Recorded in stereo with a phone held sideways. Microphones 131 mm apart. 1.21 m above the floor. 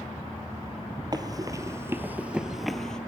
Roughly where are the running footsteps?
Right.